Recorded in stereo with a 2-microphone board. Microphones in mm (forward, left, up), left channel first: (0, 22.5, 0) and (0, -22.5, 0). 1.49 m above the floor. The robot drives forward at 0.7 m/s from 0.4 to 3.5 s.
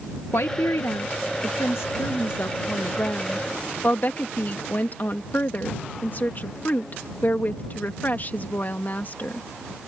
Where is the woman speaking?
80° left; by 9.4 s 40° left (ahead or behind).